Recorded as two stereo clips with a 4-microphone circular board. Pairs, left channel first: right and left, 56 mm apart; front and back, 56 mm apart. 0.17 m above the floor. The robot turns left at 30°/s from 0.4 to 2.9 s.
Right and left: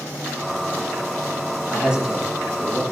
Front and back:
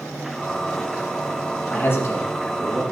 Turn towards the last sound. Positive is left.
turn(degrees=-10)